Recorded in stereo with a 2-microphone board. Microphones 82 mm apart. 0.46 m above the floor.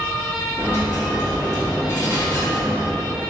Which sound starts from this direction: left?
A dropped coin, at 0.6 s.